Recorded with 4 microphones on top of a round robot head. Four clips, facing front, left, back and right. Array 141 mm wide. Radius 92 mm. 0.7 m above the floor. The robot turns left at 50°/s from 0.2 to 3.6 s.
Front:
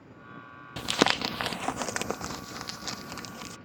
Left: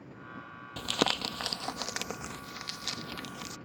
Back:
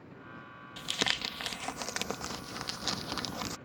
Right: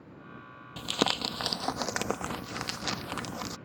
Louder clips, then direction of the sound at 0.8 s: Right 1 dB, front 11 dB; 10° left.